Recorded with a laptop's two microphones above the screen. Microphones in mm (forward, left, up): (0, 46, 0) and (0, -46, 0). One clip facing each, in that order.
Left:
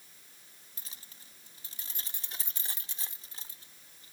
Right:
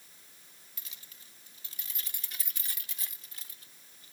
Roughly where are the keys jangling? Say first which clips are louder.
Left 2 dB; left.